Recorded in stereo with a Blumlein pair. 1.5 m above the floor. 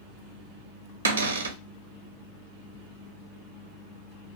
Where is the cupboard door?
70° right, 0.6 m.